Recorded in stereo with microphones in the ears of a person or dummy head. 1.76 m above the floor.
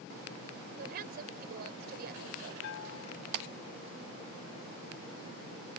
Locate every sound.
0.8 s a woman speaking: 55° right (ahead or behind)
2.6 s a bell: 80° left